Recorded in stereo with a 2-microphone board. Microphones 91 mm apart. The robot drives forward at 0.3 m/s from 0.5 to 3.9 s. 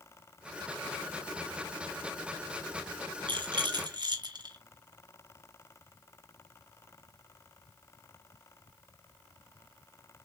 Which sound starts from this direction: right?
A rattle, at 3.3 s.